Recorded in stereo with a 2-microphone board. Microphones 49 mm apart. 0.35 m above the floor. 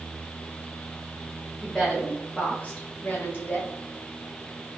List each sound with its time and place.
1.6 s a woman speaking: centre (ahead or behind), 0.9 m; by 3.7 s 50° left (ahead or behind), 1.2 m